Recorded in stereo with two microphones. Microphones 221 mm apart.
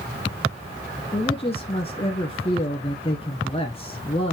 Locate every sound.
1.1 s a man speaking: 25° left (ahead or behind), 1.4 m